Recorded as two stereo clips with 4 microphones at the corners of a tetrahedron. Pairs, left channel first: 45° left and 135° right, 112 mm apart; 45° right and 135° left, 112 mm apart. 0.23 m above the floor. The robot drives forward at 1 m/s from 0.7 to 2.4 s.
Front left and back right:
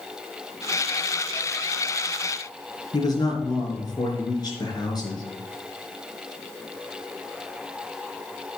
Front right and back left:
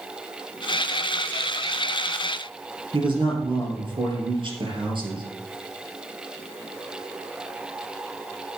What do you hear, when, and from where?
2.9 s a man speaking: 95° left, 3.5 m